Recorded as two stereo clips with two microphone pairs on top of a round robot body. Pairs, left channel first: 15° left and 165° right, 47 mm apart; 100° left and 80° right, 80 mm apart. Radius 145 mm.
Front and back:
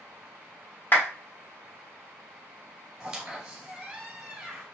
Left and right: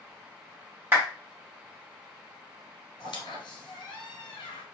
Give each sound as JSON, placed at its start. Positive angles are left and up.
{"t": 0.9, "sound": "a clap", "azimuth_deg": -20, "distance_m": 1.5}
{"t": 3.0, "sound": "a squeak", "azimuth_deg": 120, "distance_m": 1.0}